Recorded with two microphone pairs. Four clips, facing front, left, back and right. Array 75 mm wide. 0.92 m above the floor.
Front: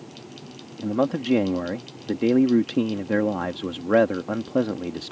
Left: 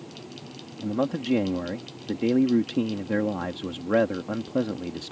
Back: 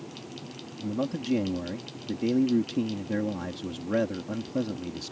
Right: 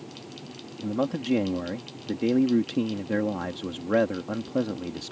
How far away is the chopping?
I don't hear chopping.